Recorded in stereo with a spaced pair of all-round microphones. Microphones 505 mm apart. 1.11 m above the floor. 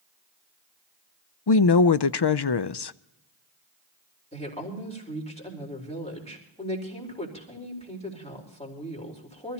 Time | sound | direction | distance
1.5 | a woman speaking | 55° left (ahead or behind) | 0.5 m
4.3 | a woman speaking | 15° left (ahead or behind) | 4 m